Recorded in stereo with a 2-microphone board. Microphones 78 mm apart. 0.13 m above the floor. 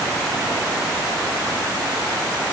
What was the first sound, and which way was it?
Only background noise.